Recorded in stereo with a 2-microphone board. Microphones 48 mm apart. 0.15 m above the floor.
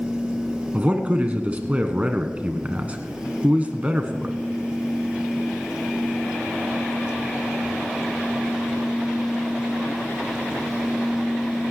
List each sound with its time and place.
0.7 s a man speaking: 30° right (ahead or behind), 1.2 m